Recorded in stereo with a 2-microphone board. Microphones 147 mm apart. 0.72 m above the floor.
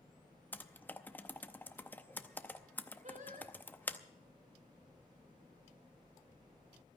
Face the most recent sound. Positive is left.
turn(degrees=-60)  # may be behind; listen again after turning